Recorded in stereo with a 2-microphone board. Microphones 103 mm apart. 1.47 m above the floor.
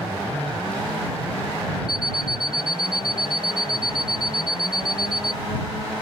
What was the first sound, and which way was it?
An alarm clock, 5° right (ahead or behind).